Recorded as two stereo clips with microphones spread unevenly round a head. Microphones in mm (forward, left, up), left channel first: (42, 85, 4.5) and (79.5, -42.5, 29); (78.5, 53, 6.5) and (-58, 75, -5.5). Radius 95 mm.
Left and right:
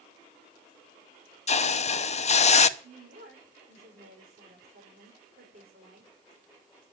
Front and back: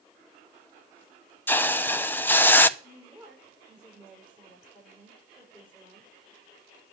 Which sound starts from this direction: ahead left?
A hiss, at 1.5 s.